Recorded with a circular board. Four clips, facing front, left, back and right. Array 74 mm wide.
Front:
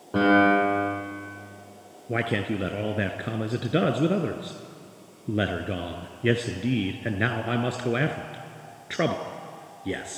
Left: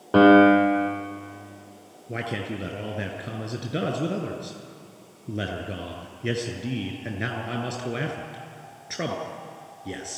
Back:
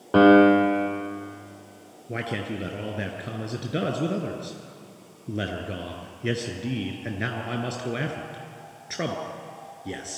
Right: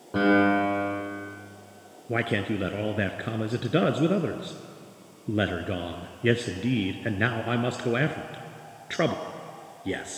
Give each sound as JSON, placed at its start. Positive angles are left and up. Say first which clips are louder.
{"t": 0.1, "sound": "a piano", "louder": "left 7 dB, back 5 dB", "azimuth_deg": 125, "distance_m": 4.0}
{"t": 2.1, "sound": "a man speaking", "louder": "right 4 dB, front 4 dB", "azimuth_deg": -50, "distance_m": 1.4}